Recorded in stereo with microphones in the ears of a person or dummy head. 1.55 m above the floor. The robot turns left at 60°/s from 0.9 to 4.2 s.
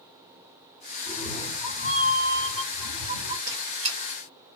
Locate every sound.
1.1 s a cat meowing: 20° left, 3.5 m; by 3.4 s 120° right, 3.5 m
3.5 s a squeak: 40° right (ahead or behind), 1.3 m; by 4.0 s 20° right (ahead or behind), 1.3 m